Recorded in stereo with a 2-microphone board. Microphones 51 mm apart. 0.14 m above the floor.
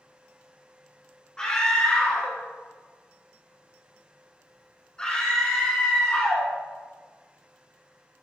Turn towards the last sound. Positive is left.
turn(degrees=20)  # may be behind; listen again after turning